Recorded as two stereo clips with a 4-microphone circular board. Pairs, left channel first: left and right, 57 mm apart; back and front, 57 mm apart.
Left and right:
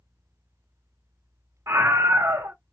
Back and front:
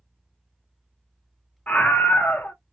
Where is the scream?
120° right, 0.7 m.